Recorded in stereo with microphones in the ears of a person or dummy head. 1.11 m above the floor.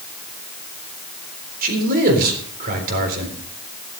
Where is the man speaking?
55° right (ahead or behind), 3.5 m.